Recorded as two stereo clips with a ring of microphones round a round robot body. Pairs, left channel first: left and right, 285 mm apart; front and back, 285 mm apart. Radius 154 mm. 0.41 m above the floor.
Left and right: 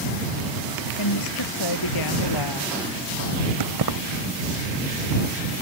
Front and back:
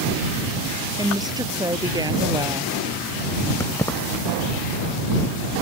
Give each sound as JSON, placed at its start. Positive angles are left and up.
{"t": 1.0, "sound": "a woman speaking", "azimuth_deg": 105}
{"t": 3.6, "sound": "keys jangling", "azimuth_deg": -80}